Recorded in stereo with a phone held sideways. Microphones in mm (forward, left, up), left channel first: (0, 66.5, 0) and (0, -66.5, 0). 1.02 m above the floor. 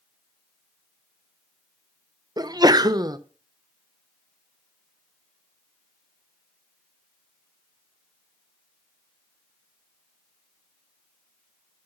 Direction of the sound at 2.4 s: 30° right (ahead or behind).